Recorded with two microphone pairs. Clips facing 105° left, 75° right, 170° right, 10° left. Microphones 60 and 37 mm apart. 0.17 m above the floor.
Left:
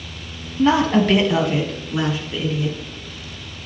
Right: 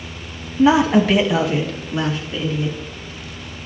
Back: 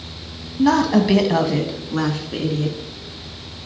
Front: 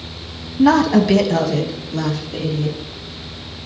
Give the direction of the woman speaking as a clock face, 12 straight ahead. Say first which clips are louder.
Right 2 dB, front 3 dB; 1 o'clock.